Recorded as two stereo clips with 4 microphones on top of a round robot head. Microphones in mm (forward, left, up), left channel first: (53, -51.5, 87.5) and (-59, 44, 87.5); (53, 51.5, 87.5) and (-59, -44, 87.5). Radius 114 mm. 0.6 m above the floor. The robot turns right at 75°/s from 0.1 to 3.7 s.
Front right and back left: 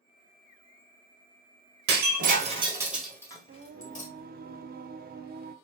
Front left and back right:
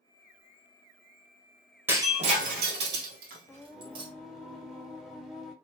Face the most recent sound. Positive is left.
turn(degrees=135)